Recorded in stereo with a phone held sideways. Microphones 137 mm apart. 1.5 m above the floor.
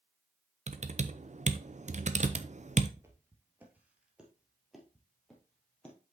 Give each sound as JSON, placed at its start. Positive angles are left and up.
{"t": 0.7, "sound": "typing on a keyboard", "side_deg": -60, "distance_m": 0.6}
{"t": 3.0, "sound": "footsteps", "side_deg": -20, "distance_m": 1.6}